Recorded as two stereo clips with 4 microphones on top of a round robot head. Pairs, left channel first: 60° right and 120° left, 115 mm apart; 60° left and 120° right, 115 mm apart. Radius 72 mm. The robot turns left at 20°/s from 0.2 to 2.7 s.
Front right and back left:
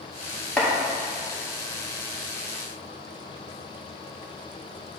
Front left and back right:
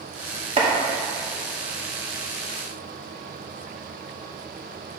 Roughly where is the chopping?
Behind right.